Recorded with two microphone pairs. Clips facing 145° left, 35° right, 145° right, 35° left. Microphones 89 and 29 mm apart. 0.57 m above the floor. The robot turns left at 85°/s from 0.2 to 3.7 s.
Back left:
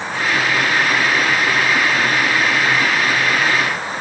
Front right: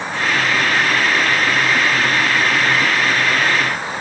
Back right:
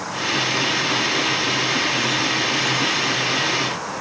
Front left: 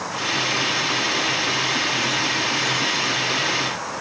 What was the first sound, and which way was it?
Only background noise.